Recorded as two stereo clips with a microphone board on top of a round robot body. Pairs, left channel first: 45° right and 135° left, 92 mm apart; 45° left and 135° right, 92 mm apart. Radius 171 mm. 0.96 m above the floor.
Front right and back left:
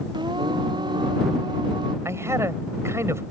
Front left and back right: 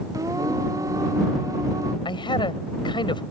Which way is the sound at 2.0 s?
75° left.